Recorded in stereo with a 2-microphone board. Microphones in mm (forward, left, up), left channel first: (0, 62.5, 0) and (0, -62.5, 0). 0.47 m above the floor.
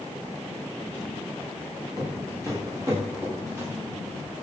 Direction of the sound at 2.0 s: 25° right (ahead or behind).